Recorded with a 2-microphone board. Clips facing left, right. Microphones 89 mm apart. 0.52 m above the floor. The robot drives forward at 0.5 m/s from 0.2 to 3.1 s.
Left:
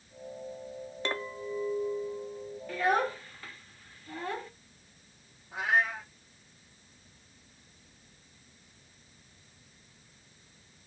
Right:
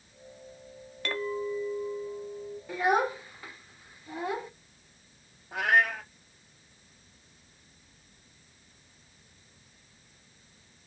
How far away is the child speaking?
About 0.6 m.